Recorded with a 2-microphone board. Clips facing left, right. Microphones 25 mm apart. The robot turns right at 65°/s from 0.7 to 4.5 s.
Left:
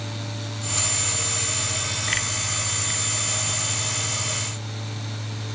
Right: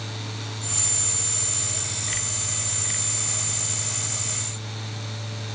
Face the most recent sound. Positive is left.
No sound to turn to.